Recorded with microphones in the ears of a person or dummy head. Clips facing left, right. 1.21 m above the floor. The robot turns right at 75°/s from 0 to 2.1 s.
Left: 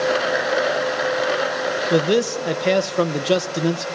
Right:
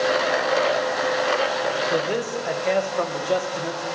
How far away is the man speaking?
About 1.0 m.